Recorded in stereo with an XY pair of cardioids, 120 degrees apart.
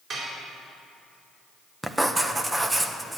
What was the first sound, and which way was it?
Dishes clattering, 45° right.